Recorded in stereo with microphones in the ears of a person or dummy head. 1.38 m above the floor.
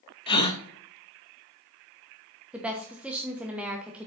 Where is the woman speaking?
5° right (ahead or behind), 1.0 m.